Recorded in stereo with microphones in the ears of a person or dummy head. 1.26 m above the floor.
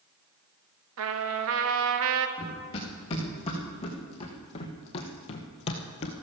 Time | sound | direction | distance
1.0 | a trumpet | 70° right (ahead or behind) | 1.1 m
2.4 | running footsteps | 30° left (ahead or behind) | 5 m